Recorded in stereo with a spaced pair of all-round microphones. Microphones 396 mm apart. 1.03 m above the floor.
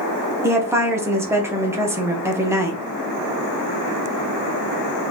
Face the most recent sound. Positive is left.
turn(degrees=-5)  # may be behind; listen again after turning